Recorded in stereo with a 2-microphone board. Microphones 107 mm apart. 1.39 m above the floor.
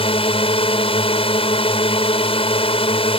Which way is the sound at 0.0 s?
60° left (ahead or behind).